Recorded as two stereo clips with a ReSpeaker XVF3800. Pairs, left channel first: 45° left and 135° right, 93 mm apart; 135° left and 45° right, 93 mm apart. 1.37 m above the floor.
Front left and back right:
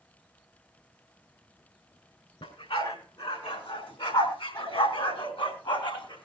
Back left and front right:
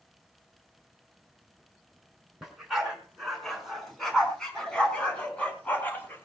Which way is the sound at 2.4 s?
40° left.